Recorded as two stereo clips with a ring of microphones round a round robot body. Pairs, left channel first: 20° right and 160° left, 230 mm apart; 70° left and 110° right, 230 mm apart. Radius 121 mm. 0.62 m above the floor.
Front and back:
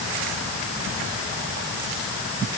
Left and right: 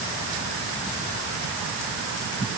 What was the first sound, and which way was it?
Only background noise.